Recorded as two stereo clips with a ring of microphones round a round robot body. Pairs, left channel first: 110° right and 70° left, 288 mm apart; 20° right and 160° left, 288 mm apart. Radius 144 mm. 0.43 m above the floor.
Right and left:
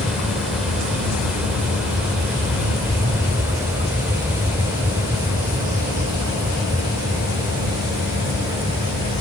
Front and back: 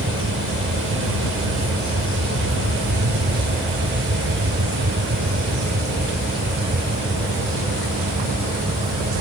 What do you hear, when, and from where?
0.0 s an aircraft: 155° left; by 9.2 s 135° left